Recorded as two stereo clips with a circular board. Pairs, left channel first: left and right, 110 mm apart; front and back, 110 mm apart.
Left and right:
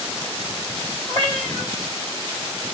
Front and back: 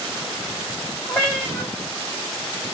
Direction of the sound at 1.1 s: 65° right.